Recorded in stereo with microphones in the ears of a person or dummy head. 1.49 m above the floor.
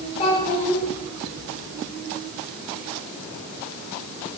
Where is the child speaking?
30° left (ahead or behind), 2.5 m.